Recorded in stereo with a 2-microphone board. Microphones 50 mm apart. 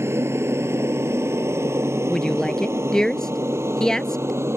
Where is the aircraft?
60° right (ahead or behind); by 4.6 s 65° right (ahead or behind).